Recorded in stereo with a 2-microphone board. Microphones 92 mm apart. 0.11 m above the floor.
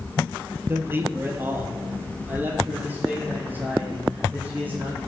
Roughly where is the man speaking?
Right.